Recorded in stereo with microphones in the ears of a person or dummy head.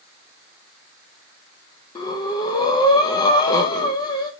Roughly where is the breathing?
Left.